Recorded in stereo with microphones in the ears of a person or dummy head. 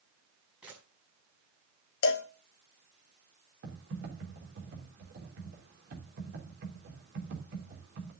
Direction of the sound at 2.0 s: 65° left (ahead or behind).